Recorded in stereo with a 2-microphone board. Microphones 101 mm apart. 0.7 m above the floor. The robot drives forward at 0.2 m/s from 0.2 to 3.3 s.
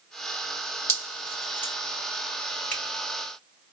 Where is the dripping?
25° left (ahead or behind), 2.0 m.